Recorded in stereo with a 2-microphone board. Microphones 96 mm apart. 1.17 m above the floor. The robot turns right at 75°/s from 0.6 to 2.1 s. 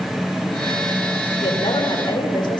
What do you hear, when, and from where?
1.4 s a woman speaking: 75° left, 3.5 m; by 2.6 s 125° left, 3.5 m